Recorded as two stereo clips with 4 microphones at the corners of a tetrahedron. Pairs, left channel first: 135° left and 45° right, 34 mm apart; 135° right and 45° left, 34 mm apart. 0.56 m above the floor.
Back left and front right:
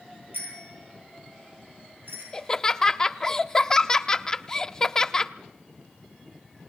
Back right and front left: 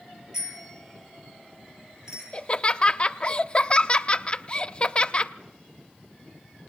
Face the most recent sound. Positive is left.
turn(degrees=-170)